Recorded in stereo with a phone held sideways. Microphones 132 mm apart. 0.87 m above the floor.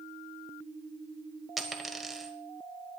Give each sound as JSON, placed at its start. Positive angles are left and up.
{"t": 1.6, "sound": "a dropped coin", "side_deg": 0, "distance_m": 1.2}